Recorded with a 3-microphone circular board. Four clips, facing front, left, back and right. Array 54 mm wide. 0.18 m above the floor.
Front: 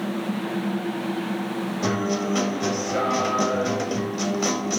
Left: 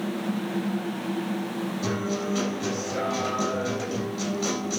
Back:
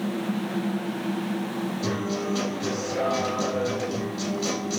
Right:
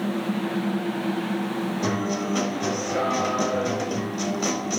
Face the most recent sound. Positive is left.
turn(degrees=-30)